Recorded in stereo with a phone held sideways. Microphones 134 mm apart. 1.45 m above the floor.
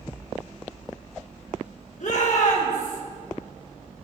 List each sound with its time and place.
2.0 s a shout: 65° left (ahead or behind), 2 m